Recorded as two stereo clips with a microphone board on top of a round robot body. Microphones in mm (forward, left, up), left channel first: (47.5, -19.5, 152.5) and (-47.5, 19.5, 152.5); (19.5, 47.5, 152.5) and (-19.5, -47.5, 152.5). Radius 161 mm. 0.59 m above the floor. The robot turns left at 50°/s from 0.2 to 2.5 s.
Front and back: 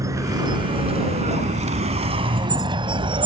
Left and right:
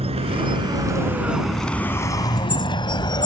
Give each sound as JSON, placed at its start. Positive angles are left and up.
{"t": 0.0, "sound": "a vehicle", "azimuth_deg": -140}